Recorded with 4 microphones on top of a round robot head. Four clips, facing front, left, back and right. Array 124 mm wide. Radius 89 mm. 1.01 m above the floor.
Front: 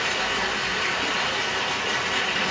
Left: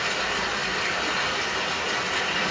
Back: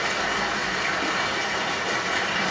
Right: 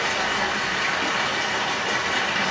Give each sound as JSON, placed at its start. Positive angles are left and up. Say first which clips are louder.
{"t": 0.0, "sound": "running water", "louder": "right 3 dB, back 1 dB", "azimuth_deg": -115, "distance_m": 1.4}